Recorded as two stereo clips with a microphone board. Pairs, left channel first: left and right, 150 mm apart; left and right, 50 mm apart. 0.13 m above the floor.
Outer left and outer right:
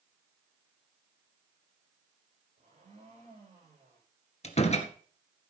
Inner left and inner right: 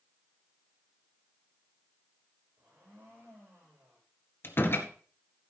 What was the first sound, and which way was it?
A blender, 50° right (ahead or behind).